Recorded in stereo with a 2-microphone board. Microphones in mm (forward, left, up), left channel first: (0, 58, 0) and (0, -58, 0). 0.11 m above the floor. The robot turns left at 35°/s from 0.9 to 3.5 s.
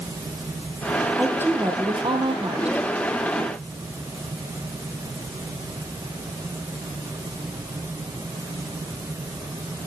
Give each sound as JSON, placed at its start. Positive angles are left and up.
{"t": 1.2, "sound": "a woman speaking", "azimuth_deg": -10, "distance_m": 3.0}